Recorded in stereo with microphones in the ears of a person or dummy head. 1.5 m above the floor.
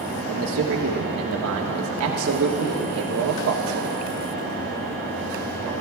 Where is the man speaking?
75° right (ahead or behind), 1.6 m.